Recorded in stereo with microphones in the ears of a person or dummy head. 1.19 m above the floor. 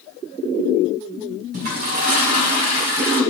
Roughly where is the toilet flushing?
Right.